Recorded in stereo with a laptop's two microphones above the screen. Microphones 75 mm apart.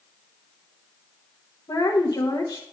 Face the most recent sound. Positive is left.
turn(degrees=60)  # may be behind; listen again after turning